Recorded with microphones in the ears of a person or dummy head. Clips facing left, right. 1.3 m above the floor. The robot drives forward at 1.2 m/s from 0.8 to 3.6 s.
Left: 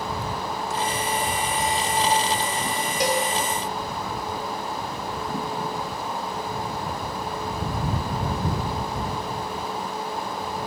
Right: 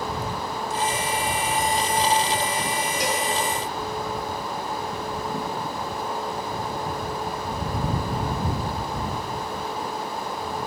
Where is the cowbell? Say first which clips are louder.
Left 6 dB; 55° left (ahead or behind), 2.5 m; by 3.3 s 60° left (ahead or behind), 2.5 m.